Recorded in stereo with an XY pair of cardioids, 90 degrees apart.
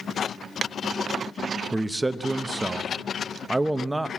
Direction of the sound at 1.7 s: 15° right.